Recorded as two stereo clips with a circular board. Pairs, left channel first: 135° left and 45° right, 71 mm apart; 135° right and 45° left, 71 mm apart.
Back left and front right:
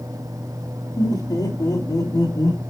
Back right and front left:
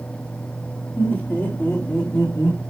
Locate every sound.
1.0 s laughter: 160° left, 2.5 m; by 2.6 s 170° left, 4.5 m